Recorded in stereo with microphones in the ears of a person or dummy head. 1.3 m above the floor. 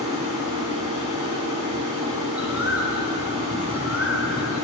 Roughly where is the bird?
Centre.